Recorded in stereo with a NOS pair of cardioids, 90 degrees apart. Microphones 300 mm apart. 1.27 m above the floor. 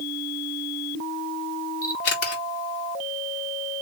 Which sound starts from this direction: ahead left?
A camera shutter, at 1.8 s.